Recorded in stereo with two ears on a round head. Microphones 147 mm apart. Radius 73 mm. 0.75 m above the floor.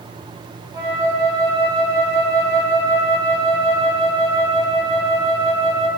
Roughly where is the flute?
Right.